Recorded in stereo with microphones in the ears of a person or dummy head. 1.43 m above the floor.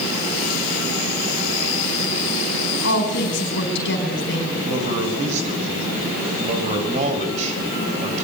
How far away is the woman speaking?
About 4.5 m.